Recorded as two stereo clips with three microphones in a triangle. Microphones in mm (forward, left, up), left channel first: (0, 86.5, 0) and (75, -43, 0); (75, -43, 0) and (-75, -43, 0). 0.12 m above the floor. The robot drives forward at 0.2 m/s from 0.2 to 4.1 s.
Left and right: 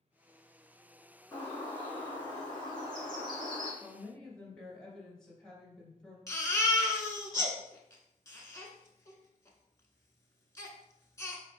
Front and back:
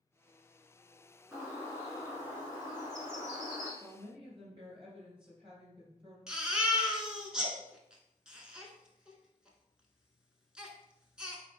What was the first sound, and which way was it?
A bird, 105° left.